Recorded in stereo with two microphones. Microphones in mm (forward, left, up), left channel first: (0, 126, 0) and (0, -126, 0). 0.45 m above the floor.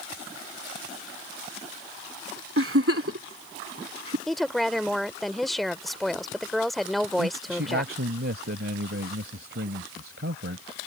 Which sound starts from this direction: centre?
A woman speaking, at 4.3 s.